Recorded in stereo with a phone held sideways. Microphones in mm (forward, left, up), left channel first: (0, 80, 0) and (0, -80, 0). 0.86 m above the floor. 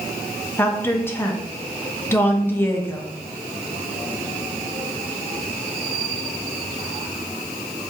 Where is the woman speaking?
15° left (ahead or behind), 0.5 m.